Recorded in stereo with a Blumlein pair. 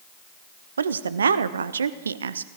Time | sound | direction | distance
0.8 | a woman speaking | 70° right | 0.8 m